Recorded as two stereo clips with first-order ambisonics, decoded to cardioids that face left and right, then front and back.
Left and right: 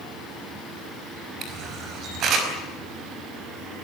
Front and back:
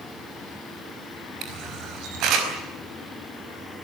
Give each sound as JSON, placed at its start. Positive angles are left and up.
{"t": 1.4, "sound": "a camera shutter", "azimuth_deg": -140, "distance_m": 4.5}